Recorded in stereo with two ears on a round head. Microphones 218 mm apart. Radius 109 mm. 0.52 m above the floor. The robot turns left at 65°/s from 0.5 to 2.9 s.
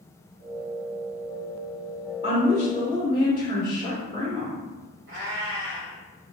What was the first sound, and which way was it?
A woman speaking, 65° left.